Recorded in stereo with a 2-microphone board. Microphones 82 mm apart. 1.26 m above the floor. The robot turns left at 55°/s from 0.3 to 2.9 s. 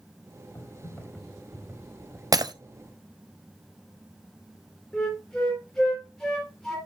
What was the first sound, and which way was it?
Typing on a keyboard, 45° left.